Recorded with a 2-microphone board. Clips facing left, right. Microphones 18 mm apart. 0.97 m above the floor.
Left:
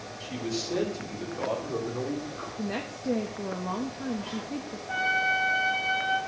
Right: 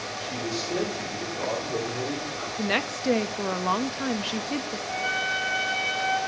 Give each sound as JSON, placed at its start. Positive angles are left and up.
{"t": 0.2, "sound": "a man speaking", "side_deg": 0, "distance_m": 3.0}
{"t": 2.6, "sound": "a woman speaking", "side_deg": -60, "distance_m": 0.7}
{"t": 4.9, "sound": "a trumpet", "side_deg": 5, "distance_m": 7.0}